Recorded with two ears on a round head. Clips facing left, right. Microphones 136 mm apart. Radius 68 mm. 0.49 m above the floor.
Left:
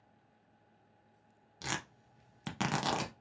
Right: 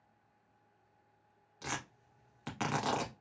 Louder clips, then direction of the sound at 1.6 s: Left 1 dB; 45° left (ahead or behind).